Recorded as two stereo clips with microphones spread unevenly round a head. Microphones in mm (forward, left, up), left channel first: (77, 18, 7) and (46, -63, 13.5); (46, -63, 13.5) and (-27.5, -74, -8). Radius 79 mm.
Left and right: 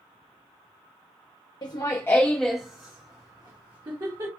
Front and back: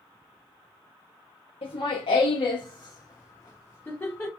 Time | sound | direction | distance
1.6 | laughter | 35° left | 0.6 m